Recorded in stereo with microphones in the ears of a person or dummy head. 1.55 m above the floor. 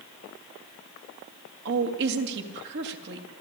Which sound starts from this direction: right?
A woman speaking, at 1.6 s.